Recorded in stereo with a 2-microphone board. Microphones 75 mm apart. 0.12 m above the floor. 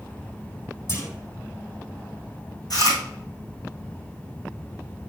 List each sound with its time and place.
0.9 s a clunk: 40° left (ahead or behind), 2.5 m
2.7 s chewing: 60° left (ahead or behind), 3.5 m